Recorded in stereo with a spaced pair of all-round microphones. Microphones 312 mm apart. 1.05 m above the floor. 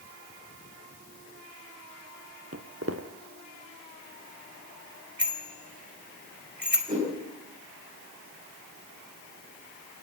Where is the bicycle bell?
30° right (ahead or behind), 3 m.